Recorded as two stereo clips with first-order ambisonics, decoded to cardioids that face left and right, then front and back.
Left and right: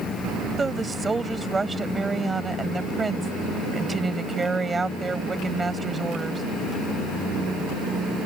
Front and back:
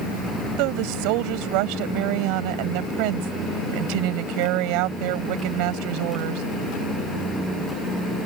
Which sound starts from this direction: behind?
A woman speaking, at 0.6 s.